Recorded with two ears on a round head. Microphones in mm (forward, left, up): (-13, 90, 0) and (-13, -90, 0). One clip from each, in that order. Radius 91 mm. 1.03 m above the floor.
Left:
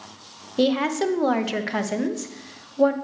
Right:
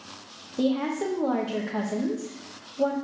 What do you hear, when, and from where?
0.6 s a woman speaking: 60° left (ahead or behind), 0.7 m